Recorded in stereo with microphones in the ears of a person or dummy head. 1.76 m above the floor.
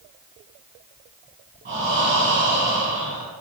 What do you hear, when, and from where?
1.6 s breathing: 40° right (ahead or behind), 1.7 m